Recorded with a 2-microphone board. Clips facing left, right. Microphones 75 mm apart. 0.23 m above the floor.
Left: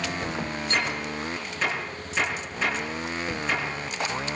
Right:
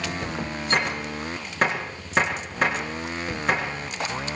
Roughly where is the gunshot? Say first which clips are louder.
Right 4 dB; right.